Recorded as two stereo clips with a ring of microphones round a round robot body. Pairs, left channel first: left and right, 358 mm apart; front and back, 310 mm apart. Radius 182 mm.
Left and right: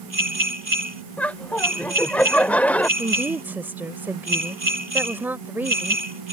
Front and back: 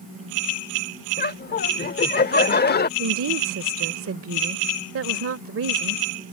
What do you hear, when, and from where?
1.2 s laughter: 10° left
3.0 s a woman speaking: 170° right